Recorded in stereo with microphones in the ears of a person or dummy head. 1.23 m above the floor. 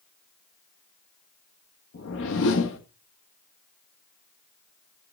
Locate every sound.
1.9 s a whoosh: 75° left (ahead or behind), 1.5 m